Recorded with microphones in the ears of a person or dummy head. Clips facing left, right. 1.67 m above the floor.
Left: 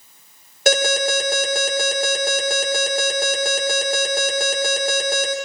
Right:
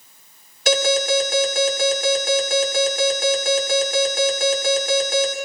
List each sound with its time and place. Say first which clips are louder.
0.7 s an alarm: even; 50° left (ahead or behind), 9 m